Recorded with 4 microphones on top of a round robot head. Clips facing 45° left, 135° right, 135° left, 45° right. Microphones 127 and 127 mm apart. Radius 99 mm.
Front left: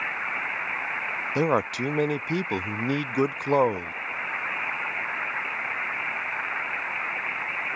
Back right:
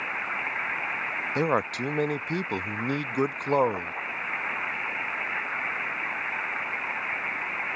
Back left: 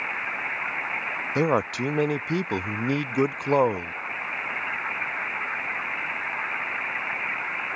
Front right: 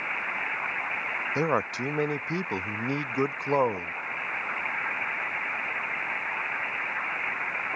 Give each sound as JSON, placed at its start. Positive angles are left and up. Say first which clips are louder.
{"t": 1.4, "sound": "a man speaking", "louder": "front left 2 dB, back left 4 dB", "azimuth_deg": 105}